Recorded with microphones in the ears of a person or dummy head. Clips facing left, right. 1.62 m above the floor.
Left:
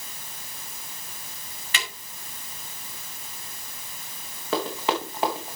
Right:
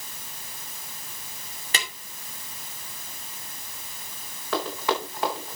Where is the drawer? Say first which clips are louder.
Right 1 dB; 35° right (ahead or behind), 3 m.